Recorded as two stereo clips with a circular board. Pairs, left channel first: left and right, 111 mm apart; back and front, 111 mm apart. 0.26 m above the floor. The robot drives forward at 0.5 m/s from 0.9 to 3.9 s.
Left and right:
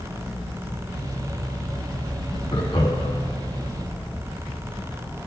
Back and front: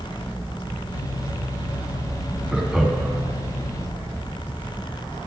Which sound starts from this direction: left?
Laughter, at 2.5 s.